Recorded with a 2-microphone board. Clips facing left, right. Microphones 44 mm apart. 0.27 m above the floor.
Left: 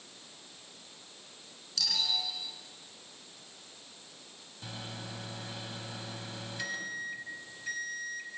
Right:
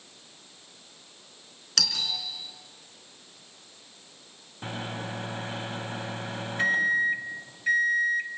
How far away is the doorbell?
About 4 m.